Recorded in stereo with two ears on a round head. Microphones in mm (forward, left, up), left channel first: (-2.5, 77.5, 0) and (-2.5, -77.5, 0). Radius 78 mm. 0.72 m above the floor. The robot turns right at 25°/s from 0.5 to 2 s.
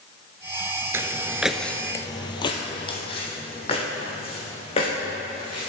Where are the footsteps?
15° right (ahead or behind), 0.7 m; by 5.7 s 35° left (ahead or behind), 4.5 m.